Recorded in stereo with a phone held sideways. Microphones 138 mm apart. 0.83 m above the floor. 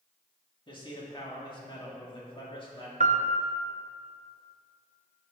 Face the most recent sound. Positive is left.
turn(degrees=-60)  # may be behind; listen again after turning